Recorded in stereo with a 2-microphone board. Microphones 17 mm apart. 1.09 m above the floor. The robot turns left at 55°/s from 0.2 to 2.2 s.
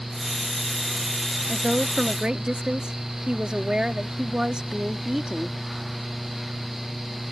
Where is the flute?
I don't hear a flute.